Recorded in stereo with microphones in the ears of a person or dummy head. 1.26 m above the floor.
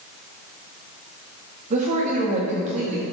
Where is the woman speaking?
40° right (ahead or behind), 1.6 m.